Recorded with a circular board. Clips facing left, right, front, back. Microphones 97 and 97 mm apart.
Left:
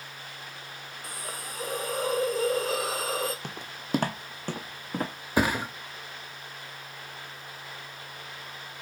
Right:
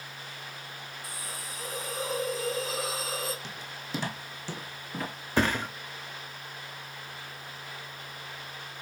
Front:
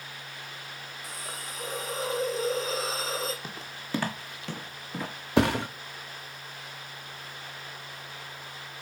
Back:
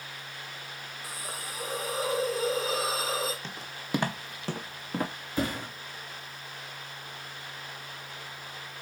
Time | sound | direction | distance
1.0 | a hiss | 100° left | 1.0 m
3.4 | footsteps | 80° left | 0.9 m
5.4 | a thud | 10° left | 0.5 m